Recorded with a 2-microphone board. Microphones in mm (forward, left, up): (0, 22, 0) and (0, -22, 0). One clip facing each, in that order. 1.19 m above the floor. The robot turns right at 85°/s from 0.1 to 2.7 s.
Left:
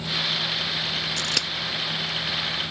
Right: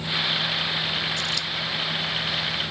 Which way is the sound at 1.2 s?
65° left (ahead or behind).